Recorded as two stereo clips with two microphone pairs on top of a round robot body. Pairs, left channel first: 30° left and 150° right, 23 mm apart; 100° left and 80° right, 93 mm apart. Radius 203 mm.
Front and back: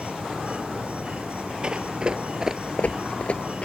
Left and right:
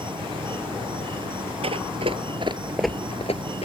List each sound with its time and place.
0.0 s an insect: 115° right
1.6 s running footsteps: 105° right; by 3.6 s 80° left